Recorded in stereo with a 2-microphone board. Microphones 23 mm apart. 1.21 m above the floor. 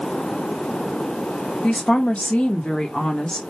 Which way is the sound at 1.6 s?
60° left (ahead or behind).